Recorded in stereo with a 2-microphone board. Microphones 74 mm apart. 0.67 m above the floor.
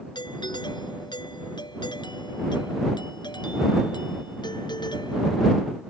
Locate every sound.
0.1 s a doorbell: 80° left